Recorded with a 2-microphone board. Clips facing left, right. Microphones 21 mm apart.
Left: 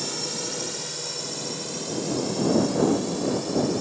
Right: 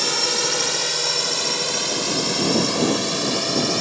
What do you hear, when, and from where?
0.0 s a drone: 45° right (ahead or behind); by 3.8 s 55° right (ahead or behind)